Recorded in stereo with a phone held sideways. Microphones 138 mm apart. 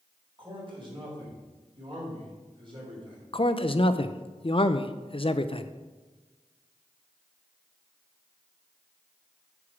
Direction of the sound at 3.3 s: 45° left (ahead or behind).